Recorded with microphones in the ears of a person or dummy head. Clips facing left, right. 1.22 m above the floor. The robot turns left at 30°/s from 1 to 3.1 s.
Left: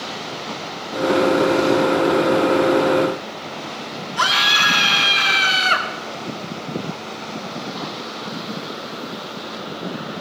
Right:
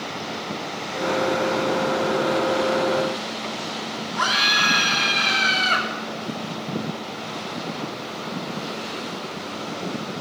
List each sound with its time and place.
4.2 s a scream: 45° left (ahead or behind), 2.5 m